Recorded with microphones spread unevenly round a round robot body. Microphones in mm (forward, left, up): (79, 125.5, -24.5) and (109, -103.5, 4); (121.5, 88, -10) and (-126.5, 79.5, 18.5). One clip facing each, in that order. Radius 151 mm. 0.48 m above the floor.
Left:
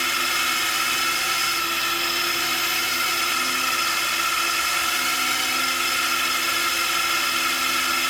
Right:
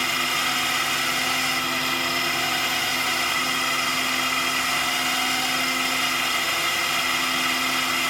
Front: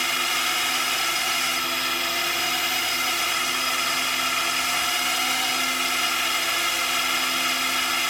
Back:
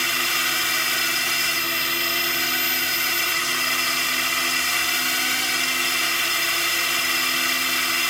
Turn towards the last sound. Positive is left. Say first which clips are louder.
# right 2 dB, back 1 dB
turn(degrees=155)